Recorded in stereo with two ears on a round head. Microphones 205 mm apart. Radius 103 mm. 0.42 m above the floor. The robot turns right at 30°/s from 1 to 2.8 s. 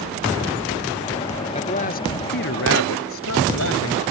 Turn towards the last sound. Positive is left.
turn(degrees=65)